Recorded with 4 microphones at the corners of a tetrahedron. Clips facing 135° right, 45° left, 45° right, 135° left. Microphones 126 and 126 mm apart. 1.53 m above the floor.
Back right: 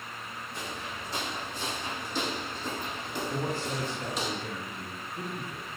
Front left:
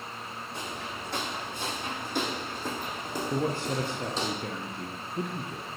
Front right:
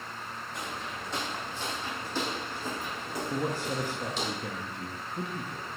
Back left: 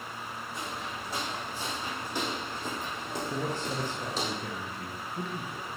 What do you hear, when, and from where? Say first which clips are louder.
0.5 s footsteps: front left 1 dB, even; 50° left, 4 m; by 4.3 s 100° left, 2.5 m
3.3 s a man speaking: front left 5 dB, front right 3 dB; 35° left, 0.8 m